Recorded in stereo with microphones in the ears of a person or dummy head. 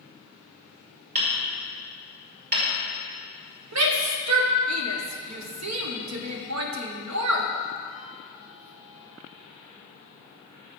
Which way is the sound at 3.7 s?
80° right.